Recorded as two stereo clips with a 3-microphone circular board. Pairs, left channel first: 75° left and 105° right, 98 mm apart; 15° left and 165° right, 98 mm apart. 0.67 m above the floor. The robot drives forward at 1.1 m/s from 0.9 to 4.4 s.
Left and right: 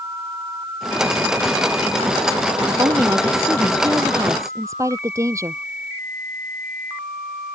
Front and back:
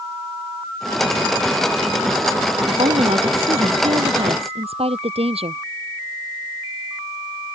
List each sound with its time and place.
2.7 s a woman speaking: 160° right; by 5.6 s 165° right